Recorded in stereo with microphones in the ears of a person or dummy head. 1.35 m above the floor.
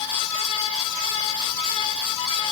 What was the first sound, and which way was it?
Only background noise.